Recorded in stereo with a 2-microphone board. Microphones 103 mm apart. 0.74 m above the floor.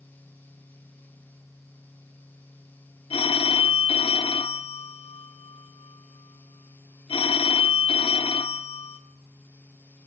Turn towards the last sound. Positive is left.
turn(degrees=70)  # may be behind; listen again after turning